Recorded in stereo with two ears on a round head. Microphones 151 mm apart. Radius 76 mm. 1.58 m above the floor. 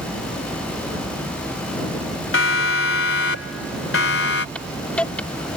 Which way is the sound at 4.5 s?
5° left (ahead or behind).